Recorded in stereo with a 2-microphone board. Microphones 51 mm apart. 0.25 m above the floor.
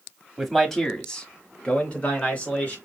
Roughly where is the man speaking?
Centre.